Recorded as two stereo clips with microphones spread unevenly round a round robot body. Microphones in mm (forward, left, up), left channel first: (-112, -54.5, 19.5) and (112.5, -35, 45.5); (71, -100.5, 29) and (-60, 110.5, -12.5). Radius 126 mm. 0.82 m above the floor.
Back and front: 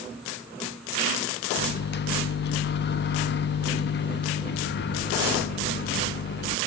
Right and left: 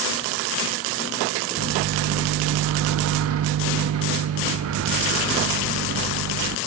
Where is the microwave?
145° left, 0.6 m.